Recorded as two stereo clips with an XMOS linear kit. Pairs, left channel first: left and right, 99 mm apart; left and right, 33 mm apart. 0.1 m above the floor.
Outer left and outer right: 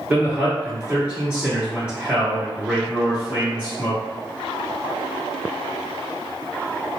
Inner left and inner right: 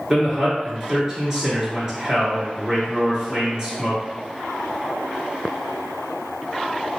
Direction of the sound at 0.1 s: 10° right (ahead or behind).